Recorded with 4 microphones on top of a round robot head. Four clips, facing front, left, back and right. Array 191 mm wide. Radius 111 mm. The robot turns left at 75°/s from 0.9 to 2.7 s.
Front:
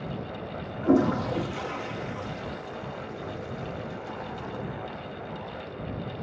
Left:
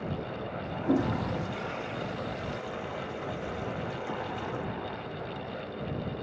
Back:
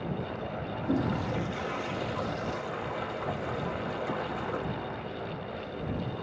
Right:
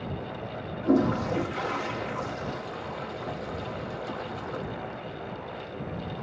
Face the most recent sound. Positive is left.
turn(degrees=-160)